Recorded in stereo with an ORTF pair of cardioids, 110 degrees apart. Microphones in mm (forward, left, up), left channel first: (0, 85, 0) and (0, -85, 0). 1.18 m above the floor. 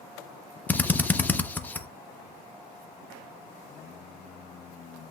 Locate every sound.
0.7 s a drill: 10° left, 0.5 m